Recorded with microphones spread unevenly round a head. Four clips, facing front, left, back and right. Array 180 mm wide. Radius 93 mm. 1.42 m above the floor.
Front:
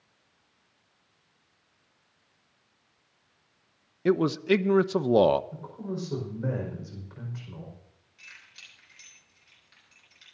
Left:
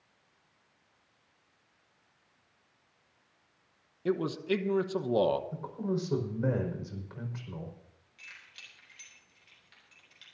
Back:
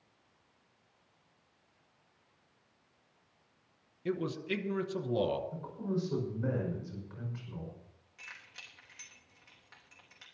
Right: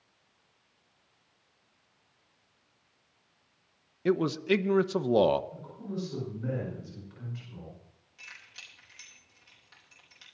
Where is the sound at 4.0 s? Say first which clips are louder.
Right 4 dB, front 12 dB; 15° right, 0.9 m.